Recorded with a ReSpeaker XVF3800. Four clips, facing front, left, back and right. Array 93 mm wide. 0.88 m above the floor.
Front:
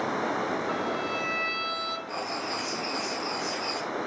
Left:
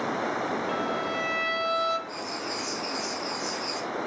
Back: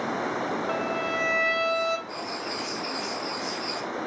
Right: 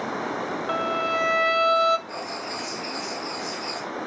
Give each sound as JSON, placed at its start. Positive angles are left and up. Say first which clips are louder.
{"t": 0.7, "sound": "a violin", "louder": "right 4 dB, back 2 dB", "azimuth_deg": -100, "distance_m": 1.3}
{"t": 2.1, "sound": "writing", "louder": "right 1 dB, front 1 dB", "azimuth_deg": -30, "distance_m": 2.5}